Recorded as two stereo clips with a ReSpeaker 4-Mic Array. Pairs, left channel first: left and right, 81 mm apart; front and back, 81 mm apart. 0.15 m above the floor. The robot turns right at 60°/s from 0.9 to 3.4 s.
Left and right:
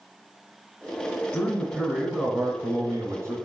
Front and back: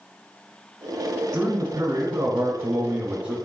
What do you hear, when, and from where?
1.3 s a man speaking: 130° left, 1.4 m; by 3.4 s 110° right, 1.4 m